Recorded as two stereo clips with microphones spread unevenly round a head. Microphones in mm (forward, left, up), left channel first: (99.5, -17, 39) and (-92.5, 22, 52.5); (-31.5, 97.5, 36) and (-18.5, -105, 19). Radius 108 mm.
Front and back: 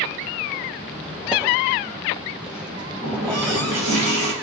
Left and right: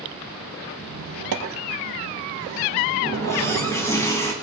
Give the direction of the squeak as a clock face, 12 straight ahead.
4 o'clock.